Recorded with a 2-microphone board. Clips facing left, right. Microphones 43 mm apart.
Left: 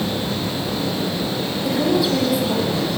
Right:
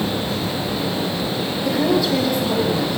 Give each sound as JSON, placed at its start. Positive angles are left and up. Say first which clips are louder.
{"t": 1.6, "sound": "a woman speaking", "louder": "even", "side_deg": 5, "distance_m": 6.5}